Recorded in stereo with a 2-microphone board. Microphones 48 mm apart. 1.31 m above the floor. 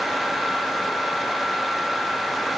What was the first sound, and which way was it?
Only background noise.